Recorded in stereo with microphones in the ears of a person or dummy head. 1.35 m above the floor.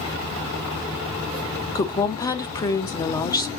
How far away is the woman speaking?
About 0.9 m.